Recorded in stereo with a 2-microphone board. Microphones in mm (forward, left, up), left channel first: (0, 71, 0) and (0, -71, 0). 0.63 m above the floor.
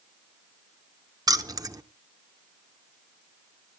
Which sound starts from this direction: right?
Keys jangling, at 1.3 s.